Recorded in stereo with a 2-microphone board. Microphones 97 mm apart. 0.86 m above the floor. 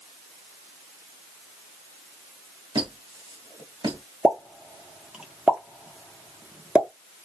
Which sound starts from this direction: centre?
A pop, at 4.2 s.